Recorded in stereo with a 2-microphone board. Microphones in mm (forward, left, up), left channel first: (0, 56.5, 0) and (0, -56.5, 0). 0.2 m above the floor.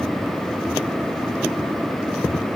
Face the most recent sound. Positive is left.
No sound to turn to.